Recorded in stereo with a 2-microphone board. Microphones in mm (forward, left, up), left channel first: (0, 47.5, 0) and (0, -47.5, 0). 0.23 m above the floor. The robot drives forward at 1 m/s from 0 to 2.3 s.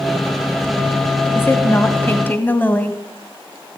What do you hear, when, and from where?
1.4 s a woman speaking: 25° left (ahead or behind), 1.2 m; by 3.0 s 20° left (ahead or behind), 1.4 m